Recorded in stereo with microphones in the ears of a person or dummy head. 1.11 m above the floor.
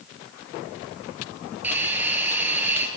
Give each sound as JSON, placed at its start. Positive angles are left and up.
{"t": 1.6, "sound": "a hiss", "side_deg": -10, "distance_m": 6.5}